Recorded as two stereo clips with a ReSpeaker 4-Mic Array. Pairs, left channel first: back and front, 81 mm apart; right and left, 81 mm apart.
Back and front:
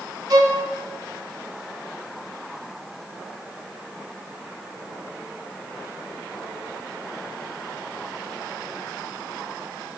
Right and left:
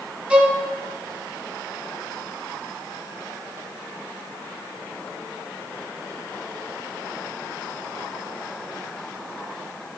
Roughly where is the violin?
Ahead.